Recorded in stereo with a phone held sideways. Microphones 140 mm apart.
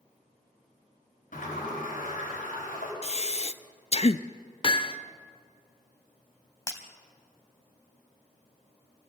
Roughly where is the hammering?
Left.